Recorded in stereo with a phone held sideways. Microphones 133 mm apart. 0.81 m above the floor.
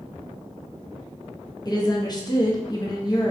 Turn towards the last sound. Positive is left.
turn(degrees=30)  # may be behind; listen again after turning